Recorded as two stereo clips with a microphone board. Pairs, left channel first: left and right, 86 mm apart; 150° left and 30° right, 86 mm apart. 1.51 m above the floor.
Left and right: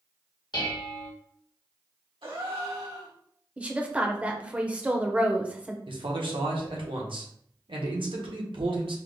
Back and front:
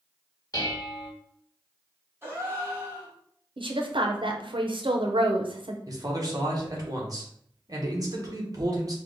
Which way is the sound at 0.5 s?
110° left.